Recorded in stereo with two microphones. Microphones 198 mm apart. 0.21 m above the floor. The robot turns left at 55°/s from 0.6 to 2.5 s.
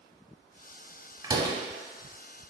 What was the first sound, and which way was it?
A door slam, 20° right (ahead or behind).